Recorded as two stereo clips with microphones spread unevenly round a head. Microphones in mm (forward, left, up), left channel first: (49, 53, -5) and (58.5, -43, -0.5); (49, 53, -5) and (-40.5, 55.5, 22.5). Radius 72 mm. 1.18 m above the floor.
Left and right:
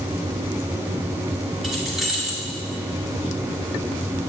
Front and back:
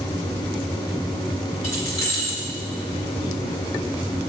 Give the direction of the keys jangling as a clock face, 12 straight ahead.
12 o'clock.